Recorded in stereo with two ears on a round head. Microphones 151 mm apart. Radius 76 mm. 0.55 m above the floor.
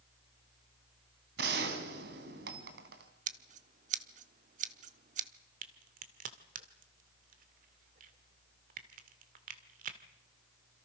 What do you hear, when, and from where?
1.4 s a gunshot: 70° right (ahead or behind), 3.5 m
3.3 s scissors: 50° right (ahead or behind), 1.1 m
5.6 s a crack: 55° right (ahead or behind), 2 m